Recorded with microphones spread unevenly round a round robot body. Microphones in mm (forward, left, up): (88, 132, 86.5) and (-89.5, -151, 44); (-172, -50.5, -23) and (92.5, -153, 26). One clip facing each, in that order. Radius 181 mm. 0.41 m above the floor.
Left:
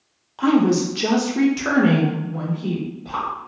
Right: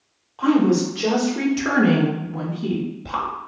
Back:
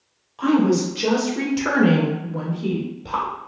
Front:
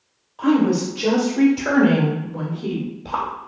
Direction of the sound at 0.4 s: 105° left.